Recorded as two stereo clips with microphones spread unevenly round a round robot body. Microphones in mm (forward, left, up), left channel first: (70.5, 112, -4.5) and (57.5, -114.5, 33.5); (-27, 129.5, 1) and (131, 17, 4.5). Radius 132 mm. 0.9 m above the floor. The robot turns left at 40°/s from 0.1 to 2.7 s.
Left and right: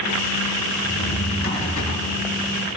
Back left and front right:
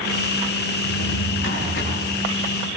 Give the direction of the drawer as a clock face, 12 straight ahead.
6 o'clock.